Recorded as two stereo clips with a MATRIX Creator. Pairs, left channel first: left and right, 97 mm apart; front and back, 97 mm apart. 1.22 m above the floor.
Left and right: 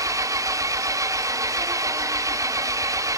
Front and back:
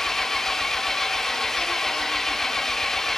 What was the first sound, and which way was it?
An engine running, 85° right.